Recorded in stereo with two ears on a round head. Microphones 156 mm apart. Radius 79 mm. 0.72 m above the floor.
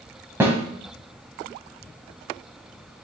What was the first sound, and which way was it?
A snare drum, 15° right (ahead or behind).